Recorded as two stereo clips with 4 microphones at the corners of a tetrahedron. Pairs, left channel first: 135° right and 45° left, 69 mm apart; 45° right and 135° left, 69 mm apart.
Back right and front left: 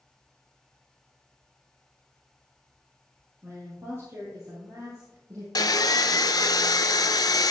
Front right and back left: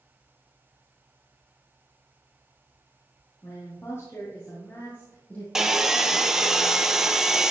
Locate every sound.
3.4 s a woman speaking: straight ahead, 3.5 m; by 5.5 s 20° left, 3.5 m
5.5 s sawing: 145° right, 0.5 m